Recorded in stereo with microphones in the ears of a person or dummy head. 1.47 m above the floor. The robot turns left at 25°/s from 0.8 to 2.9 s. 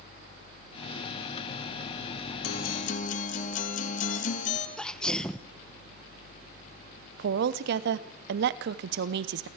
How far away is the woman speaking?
About 0.8 m.